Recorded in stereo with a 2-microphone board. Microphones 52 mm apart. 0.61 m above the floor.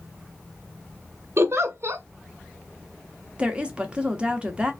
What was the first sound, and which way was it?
A giggle, 60° right (ahead or behind).